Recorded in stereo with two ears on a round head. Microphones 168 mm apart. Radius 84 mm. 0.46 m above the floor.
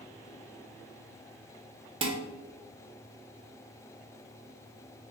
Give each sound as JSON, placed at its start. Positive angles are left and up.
{"t": 2.0, "sound": "dishes clattering", "side_deg": -30, "distance_m": 0.6}